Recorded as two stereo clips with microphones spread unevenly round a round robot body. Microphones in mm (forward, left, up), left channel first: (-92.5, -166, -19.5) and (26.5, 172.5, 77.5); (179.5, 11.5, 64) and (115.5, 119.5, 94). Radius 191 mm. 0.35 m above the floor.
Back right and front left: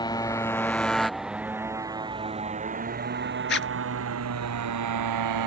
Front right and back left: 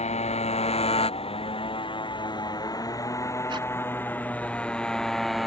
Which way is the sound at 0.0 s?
30° right.